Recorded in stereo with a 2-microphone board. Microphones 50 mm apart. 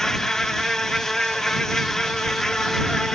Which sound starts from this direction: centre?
An insect, at 0.0 s.